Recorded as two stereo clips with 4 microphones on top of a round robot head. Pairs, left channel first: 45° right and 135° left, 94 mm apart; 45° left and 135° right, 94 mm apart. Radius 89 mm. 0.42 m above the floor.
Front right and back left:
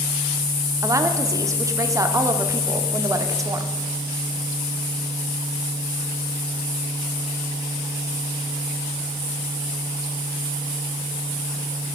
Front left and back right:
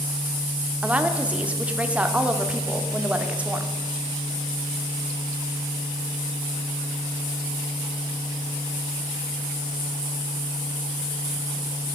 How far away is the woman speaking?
About 1.0 m.